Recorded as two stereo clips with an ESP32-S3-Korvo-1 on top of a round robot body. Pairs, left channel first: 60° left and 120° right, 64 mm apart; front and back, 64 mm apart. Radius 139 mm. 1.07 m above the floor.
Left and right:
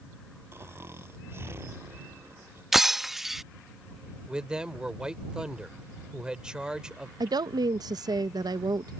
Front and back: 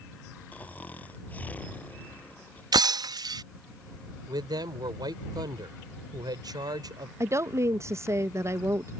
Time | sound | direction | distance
0.5 | snoring | 65° right | ?
2.7 | breaking glass | 155° left | ?
4.3 | a man speaking | 160° left | ?
7.2 | a woman speaking | 135° right | ?